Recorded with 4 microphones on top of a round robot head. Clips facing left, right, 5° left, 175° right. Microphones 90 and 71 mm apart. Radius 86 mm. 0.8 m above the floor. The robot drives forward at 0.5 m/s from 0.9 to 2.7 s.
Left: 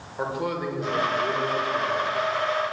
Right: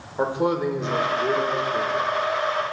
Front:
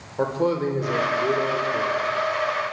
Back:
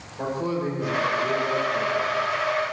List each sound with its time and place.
0.2 s a man speaking: 30° right, 2.5 m; by 2.0 s 35° right, 2 m